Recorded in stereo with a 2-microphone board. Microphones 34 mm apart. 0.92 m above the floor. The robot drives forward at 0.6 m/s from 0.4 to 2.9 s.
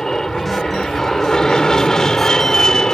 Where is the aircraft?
20° left (ahead or behind).